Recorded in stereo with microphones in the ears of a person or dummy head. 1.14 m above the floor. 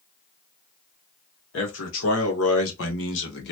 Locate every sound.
1.5 s a man speaking: 70° left (ahead or behind), 1.6 m; by 3.5 s 60° left (ahead or behind), 1.3 m